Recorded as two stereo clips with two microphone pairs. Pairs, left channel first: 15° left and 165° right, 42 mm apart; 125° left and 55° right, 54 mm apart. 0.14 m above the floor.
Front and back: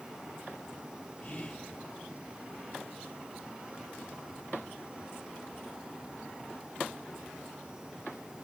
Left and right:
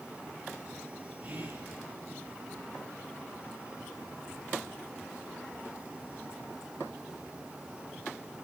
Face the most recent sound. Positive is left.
turn(degrees=-30)